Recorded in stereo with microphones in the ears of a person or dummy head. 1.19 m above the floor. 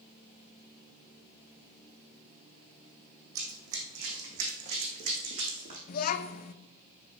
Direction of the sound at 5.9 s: 50° left (ahead or behind).